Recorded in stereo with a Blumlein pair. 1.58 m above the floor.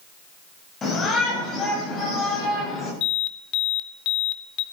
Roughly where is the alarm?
Ahead left.